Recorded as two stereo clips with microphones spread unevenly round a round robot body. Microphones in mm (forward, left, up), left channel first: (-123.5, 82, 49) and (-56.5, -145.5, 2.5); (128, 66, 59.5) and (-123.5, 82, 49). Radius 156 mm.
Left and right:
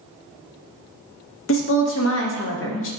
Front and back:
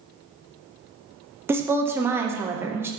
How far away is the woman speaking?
About 0.7 m.